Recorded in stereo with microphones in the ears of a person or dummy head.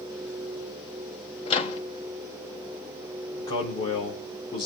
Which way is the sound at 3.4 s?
20° left (ahead or behind).